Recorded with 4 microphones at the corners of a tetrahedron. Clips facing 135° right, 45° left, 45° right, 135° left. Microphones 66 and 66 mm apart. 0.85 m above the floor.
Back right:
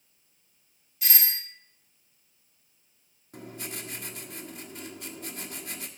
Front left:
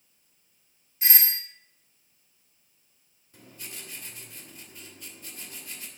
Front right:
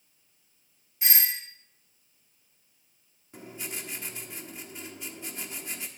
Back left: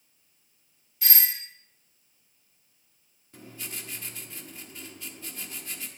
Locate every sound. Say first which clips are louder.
1.0 s a doorbell: front left 2 dB, front right 1 dB; 10° left, 1.9 m
3.3 s writing: back right 7 dB, front right 2 dB; 115° right, 1.2 m